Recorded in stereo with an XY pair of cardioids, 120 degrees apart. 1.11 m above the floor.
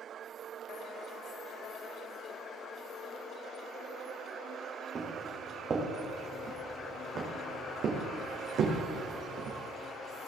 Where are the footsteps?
30° right, 4.5 m; by 9.6 s 75° right, 4 m.